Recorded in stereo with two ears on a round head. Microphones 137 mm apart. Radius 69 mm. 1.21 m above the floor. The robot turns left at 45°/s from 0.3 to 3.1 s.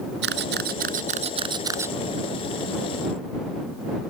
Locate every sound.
0.2 s a camera shutter: 85° right; by 1.9 s 15° right (ahead or behind)